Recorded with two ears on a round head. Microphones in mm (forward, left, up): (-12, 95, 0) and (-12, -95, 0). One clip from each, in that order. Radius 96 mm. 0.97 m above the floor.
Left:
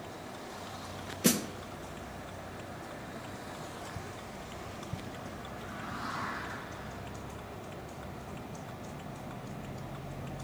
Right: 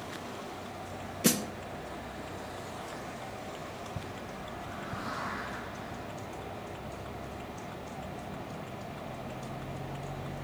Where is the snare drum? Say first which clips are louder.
Even; 5° right (ahead or behind), 0.5 m.